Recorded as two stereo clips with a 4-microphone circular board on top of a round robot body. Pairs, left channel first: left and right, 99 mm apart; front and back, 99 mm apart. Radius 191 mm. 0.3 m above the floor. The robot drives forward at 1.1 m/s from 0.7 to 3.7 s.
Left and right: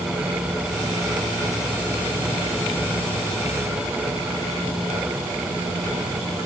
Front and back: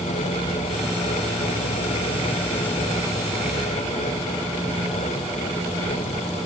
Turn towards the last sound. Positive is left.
No sound to turn to.